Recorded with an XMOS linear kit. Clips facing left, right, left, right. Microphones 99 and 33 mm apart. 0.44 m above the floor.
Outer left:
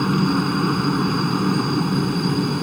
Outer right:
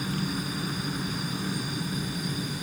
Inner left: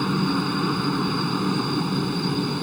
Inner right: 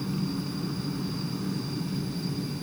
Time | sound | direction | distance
0.0 | a helicopter | 65° left (ahead or behind) | ?